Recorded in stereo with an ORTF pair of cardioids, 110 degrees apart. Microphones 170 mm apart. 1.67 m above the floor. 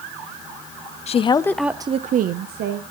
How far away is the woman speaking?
About 0.8 m.